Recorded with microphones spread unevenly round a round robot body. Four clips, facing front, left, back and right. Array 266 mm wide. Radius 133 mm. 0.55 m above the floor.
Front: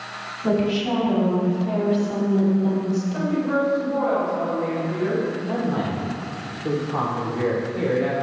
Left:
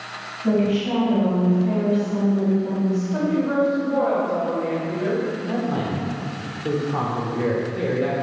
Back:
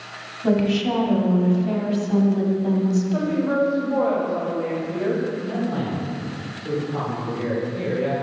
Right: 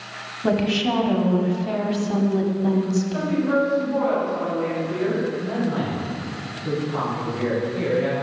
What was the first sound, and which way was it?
A woman speaking, 85° right.